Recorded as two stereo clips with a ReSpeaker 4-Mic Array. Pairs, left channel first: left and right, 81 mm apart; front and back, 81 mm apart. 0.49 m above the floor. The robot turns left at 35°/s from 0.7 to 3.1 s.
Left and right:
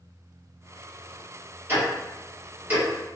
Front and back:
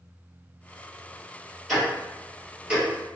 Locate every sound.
1.7 s ticking: 90° right, 1.3 m; by 3.1 s 140° right, 1.3 m